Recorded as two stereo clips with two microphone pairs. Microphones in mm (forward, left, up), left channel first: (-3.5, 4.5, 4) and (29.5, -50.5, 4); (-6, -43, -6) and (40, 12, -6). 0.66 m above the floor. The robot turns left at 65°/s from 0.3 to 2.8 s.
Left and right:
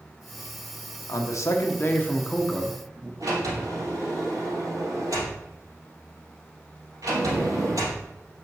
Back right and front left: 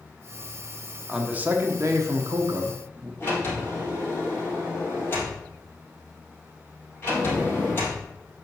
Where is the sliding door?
70° right, 3.5 m.